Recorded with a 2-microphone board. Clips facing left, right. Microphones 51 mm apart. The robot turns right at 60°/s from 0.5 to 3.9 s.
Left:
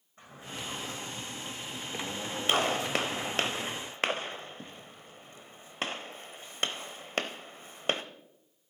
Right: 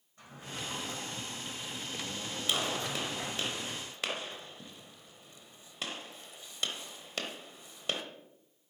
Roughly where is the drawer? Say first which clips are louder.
Left 1 dB; left.